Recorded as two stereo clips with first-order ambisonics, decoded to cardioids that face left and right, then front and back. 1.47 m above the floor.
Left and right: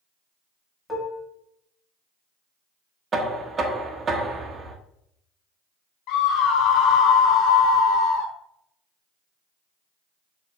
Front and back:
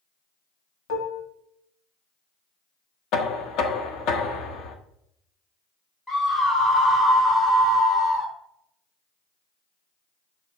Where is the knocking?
20° right, 1.1 m.